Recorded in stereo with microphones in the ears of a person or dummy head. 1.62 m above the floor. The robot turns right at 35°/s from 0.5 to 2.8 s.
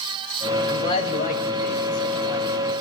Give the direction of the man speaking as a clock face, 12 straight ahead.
11 o'clock.